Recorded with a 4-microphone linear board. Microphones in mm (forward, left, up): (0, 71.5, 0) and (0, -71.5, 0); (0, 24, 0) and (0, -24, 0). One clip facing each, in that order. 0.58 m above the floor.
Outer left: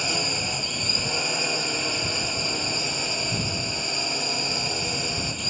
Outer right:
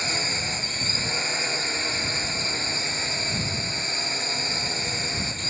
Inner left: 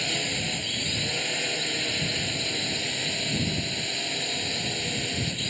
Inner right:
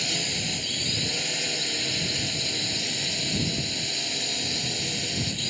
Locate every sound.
0.0 s a drone: 10° left (ahead or behind)